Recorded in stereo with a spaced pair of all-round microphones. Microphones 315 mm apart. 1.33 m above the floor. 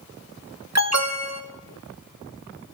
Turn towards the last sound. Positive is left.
turn(degrees=-50)  # may be behind; listen again after turning